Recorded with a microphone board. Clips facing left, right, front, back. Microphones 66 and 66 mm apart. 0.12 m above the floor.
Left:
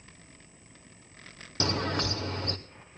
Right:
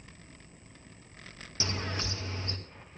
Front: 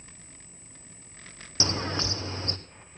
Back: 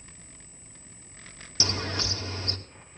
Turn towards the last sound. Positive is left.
turn(degrees=60)